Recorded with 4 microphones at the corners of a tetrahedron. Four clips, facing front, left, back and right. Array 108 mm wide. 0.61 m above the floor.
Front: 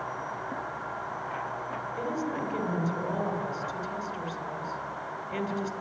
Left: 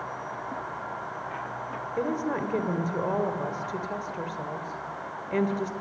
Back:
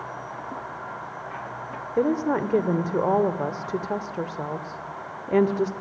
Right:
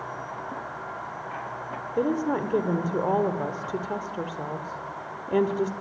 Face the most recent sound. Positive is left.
turn(degrees=-160)